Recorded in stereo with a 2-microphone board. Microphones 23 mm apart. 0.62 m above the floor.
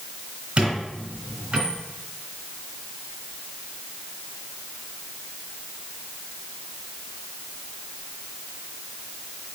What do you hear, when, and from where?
0.6 s a squeak: 40° right (ahead or behind), 2.5 m